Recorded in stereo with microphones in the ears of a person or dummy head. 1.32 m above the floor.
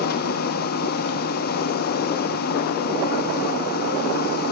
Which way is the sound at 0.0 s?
60° left (ahead or behind).